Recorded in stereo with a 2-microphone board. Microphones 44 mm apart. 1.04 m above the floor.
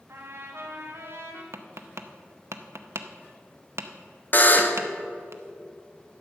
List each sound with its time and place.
0.1 s a trumpet: 70° right (ahead or behind), 1.5 m
1.5 s tapping: 80° right, 0.7 m
4.3 s a buzzer: 40° left (ahead or behind), 0.7 m